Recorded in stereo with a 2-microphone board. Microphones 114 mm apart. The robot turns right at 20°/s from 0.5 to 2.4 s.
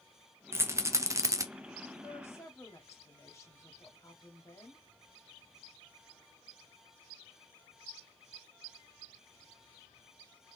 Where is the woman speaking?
15° left (ahead or behind), 1.4 m; by 4.8 s 25° left (ahead or behind), 1.4 m.